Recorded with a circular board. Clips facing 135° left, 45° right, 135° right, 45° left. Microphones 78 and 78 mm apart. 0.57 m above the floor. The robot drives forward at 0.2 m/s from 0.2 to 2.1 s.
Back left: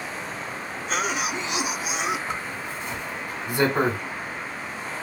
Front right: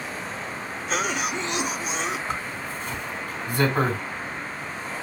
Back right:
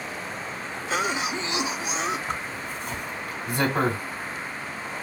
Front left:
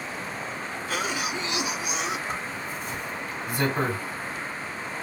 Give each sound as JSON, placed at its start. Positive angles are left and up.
{"t": 0.9, "sound": "a cough", "azimuth_deg": -135, "distance_m": 0.8}
{"t": 2.3, "sound": "a zipper", "azimuth_deg": -155, "distance_m": 2.0}